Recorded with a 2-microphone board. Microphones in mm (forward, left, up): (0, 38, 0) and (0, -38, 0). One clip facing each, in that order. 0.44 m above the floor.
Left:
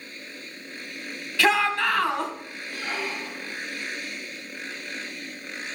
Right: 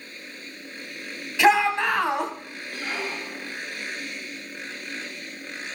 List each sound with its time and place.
1.4 s a shout: 20° right (ahead or behind), 3 m
2.7 s a squeak: centre (ahead or behind), 6 m